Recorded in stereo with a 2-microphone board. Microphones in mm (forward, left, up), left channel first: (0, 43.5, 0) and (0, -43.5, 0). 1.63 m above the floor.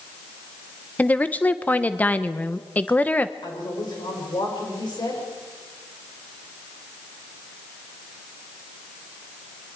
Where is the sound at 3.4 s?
60° left (ahead or behind), 7 m.